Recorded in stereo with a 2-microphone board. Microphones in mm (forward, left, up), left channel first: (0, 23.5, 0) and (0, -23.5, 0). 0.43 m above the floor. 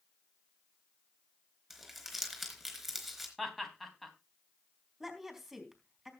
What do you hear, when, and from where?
1.7 s crumpling: centre (ahead or behind), 4 m
3.4 s laughter: centre (ahead or behind), 3 m
5.0 s a woman speaking: 5° right (ahead or behind), 3.5 m